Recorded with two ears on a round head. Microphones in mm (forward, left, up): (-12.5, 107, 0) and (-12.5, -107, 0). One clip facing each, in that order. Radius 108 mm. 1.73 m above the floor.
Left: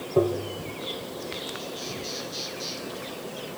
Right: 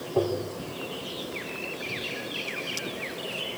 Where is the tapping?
20° left (ahead or behind), 3.5 m.